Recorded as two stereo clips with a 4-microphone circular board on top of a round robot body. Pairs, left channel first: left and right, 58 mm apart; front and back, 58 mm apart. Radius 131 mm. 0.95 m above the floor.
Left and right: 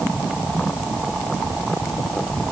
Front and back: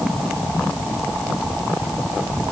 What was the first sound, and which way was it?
Only background noise.